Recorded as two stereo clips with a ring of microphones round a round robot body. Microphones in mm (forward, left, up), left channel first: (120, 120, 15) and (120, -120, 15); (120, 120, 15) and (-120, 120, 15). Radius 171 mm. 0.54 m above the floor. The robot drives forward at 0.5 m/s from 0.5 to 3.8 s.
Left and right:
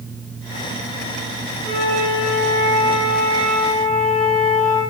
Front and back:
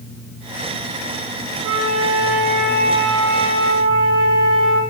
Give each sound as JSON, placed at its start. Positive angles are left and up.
{"t": 1.6, "sound": "a flute", "azimuth_deg": 160, "distance_m": 1.7}